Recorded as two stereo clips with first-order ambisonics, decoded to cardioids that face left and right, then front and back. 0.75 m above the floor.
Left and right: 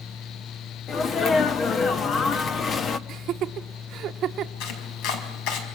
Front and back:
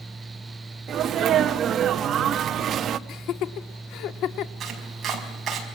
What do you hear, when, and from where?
0.9 s a sneeze: 140° left, 1.1 m
3.1 s laughter: 40° right, 1.5 m
4.6 s chopping: 115° left, 5.5 m